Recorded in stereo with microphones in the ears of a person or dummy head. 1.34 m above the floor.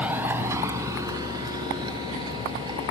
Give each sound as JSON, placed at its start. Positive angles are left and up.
{"t": 0.0, "sound": "a vehicle", "side_deg": -10}